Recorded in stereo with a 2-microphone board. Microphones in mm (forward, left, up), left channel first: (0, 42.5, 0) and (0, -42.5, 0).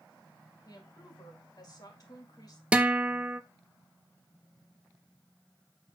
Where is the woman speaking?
45° left (ahead or behind), 2 m.